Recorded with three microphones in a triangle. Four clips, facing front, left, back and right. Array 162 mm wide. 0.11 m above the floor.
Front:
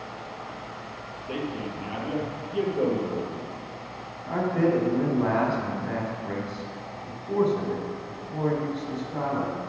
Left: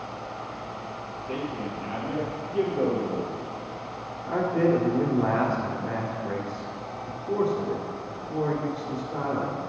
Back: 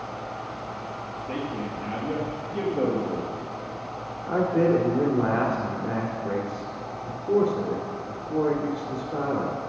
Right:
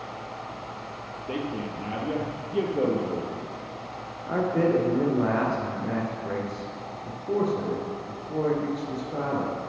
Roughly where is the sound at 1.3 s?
Right.